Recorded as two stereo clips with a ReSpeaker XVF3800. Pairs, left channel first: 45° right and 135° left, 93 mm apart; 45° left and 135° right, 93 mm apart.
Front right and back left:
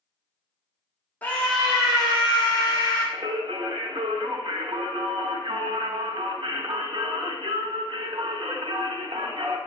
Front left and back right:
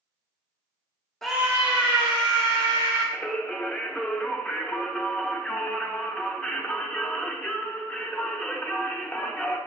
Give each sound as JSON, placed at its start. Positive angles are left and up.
{"t": 1.2, "sound": "a scream", "azimuth_deg": -25, "distance_m": 0.7}
{"t": 3.1, "sound": "singing", "azimuth_deg": 120, "distance_m": 0.5}